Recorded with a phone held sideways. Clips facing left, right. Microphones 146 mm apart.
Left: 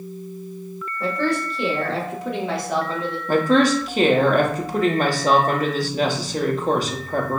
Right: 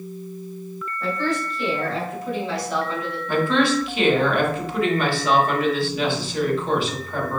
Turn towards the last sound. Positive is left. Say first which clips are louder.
# left 3 dB
turn(degrees=40)  # may be behind; listen again after turning